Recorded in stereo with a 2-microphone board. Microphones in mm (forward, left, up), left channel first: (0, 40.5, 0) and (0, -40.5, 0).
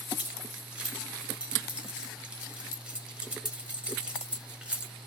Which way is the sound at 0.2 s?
15° right (ahead or behind).